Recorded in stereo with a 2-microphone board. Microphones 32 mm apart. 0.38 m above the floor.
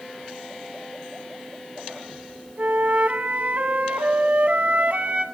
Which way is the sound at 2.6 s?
50° right (ahead or behind).